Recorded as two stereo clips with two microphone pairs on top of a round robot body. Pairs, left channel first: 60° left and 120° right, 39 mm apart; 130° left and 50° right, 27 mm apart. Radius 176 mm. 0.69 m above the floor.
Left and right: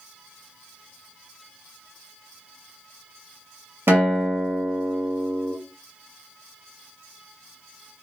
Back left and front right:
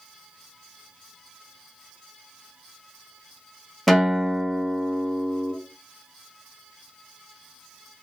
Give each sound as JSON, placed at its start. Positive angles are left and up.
{"t": 3.9, "sound": "a guitar", "azimuth_deg": -135, "distance_m": 1.2}